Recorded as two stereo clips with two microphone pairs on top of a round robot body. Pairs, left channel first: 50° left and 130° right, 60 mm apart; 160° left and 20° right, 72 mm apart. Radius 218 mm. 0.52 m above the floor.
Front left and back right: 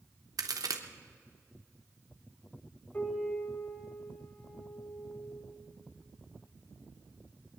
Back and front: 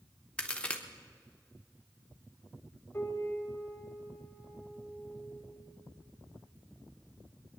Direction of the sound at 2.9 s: 100° left.